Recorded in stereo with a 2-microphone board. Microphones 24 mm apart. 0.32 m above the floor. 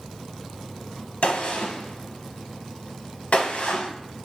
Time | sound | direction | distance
1.2 | a gunshot | 75° left (ahead or behind) | 0.6 m